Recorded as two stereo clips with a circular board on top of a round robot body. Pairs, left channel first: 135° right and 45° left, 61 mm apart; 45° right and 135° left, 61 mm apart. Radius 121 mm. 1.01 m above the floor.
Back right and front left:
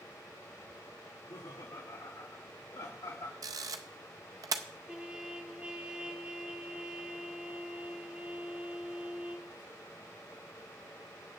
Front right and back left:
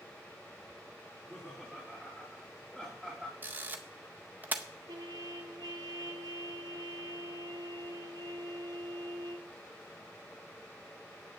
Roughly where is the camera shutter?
Left.